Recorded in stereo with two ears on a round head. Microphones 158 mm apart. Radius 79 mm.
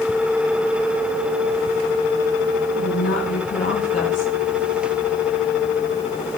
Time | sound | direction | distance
2.8 | a woman speaking | 45° left (ahead or behind) | 7.5 m